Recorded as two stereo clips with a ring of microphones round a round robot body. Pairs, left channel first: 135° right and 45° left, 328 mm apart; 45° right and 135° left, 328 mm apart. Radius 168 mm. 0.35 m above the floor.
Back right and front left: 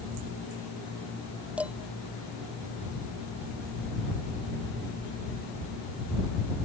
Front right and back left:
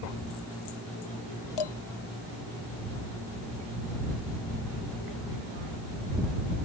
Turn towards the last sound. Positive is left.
turn(degrees=-40)